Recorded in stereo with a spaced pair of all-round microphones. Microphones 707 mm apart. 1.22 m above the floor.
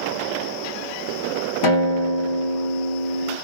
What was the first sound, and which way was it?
A guitar, 40° left (ahead or behind).